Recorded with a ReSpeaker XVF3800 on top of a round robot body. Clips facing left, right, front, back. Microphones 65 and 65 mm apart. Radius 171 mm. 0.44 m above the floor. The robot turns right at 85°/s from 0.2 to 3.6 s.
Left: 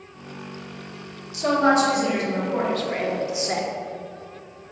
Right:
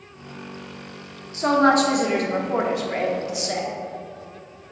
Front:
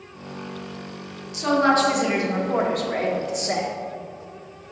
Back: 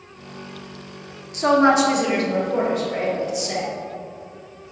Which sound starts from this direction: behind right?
A woman speaking, at 1.3 s.